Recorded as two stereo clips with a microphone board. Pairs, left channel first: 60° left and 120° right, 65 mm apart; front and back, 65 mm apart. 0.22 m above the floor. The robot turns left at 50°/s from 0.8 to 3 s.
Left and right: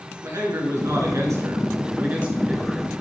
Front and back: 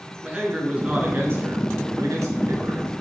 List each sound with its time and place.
0.2 s a man speaking: 115° right, 2.5 m; by 2.9 s 145° left, 2.5 m